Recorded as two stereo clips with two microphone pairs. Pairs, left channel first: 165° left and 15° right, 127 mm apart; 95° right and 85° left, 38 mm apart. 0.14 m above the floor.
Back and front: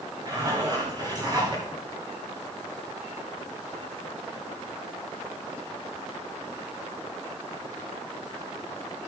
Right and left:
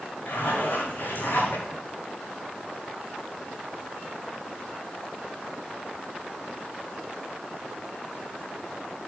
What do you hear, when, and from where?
0.2 s a zipper: 70° right, 7.5 m